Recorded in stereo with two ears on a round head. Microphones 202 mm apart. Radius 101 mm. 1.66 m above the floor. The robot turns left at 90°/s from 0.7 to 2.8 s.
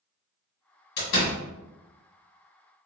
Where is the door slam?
45° left (ahead or behind), 1.4 m; by 1.4 s 65° left (ahead or behind), 1.4 m.